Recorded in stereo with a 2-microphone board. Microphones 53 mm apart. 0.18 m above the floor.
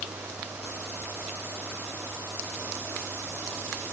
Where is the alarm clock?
I don't hear an alarm clock.